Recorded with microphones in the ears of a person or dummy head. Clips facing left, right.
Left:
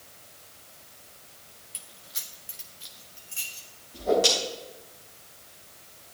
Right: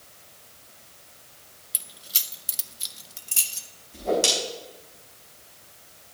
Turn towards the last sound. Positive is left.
turn(degrees=-40)  # may be behind; listen again after turning